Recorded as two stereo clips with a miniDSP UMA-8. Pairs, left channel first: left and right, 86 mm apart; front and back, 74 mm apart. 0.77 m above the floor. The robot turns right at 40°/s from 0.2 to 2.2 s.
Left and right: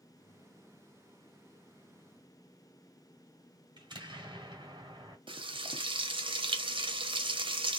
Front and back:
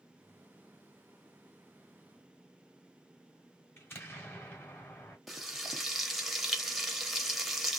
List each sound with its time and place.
3.8 s an explosion: 60° right, 1.4 m
5.3 s frying: 90° right, 0.7 m